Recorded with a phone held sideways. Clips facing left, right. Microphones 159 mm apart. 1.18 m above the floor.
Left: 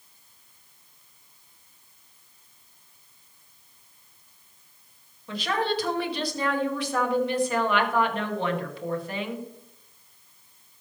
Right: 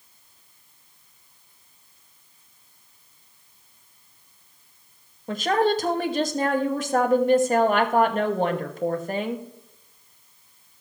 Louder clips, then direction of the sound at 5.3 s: Right 6 dB; 45° right (ahead or behind).